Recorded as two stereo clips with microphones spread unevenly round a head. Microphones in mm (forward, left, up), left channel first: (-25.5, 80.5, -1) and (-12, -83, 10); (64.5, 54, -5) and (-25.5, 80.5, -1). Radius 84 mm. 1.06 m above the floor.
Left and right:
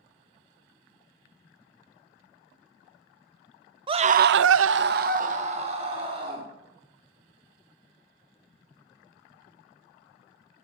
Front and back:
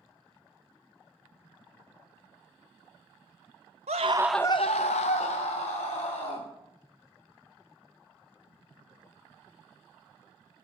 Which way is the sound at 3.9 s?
150° right.